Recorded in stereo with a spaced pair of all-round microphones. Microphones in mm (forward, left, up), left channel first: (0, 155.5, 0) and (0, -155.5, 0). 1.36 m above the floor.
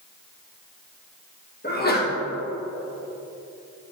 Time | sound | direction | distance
1.6 | a sneeze | 30° left (ahead or behind) | 1.6 m